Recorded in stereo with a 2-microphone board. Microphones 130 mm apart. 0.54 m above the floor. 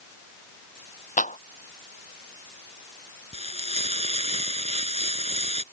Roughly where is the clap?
Left.